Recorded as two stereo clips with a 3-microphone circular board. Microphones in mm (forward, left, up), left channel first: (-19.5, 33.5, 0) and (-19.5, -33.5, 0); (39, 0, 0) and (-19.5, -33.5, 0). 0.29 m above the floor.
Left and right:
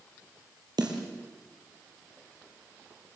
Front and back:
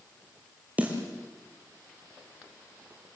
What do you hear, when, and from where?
0.8 s a snare drum: 80° right, 4.5 m